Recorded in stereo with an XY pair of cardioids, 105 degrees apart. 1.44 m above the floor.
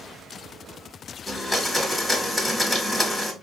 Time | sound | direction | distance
1.3 | a blender | 10° left | 1.4 m